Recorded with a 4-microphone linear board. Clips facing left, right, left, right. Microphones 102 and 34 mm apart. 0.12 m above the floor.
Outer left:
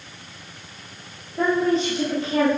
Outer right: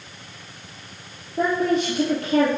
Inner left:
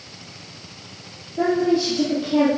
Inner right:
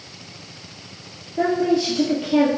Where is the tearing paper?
No tearing paper in this recording.